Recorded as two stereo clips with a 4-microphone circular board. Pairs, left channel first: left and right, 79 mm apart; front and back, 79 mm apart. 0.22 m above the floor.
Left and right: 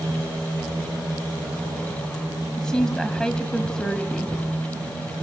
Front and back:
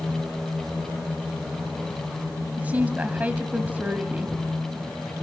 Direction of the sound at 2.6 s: 155° left.